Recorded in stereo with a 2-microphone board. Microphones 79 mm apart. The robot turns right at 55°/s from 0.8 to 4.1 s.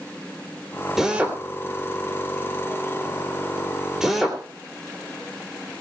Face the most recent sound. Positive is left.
turn(degrees=-5)  # may be behind; listen again after turning